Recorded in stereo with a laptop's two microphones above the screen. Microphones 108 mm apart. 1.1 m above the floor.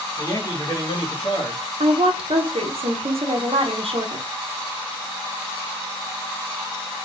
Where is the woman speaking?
70° right (ahead or behind), 0.8 m.